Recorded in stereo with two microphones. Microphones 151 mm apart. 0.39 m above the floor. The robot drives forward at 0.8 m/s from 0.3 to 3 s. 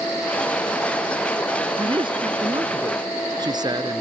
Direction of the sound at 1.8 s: 30° right (ahead or behind).